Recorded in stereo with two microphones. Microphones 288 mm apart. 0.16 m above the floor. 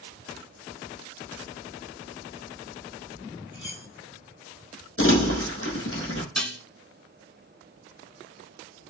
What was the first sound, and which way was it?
Cutlery clinking, 45° left (ahead or behind).